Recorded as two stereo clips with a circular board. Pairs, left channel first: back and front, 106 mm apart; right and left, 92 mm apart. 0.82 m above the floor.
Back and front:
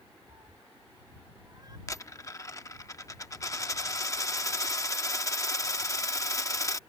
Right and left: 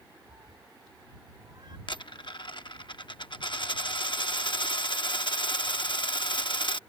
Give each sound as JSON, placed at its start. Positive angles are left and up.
{"t": 0.3, "sound": "a cat meowing", "azimuth_deg": 50}
{"t": 1.9, "sound": "a dropped coin", "azimuth_deg": -120}